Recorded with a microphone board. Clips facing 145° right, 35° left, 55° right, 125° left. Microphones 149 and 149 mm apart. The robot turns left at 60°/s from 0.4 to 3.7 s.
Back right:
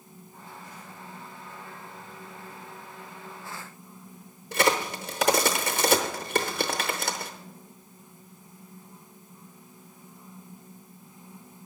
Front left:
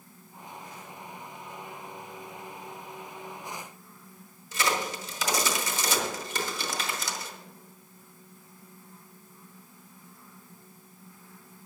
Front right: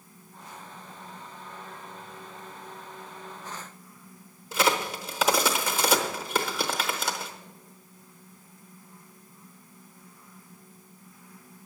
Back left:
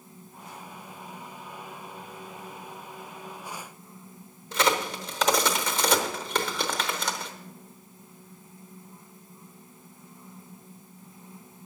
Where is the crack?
140° right, 0.9 m.